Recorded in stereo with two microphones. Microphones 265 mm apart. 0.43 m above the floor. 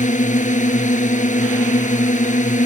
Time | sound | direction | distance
0.0 | a drone | 30° left (ahead or behind) | ?